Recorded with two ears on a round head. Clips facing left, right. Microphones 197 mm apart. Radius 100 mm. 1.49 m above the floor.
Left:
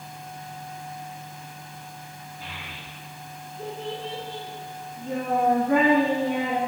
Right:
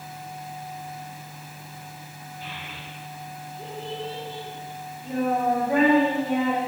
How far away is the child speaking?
About 1.8 m.